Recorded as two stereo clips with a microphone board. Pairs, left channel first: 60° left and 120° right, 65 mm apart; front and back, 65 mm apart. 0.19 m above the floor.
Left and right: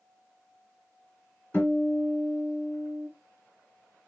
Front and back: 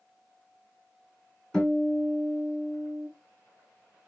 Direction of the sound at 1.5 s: 70° left.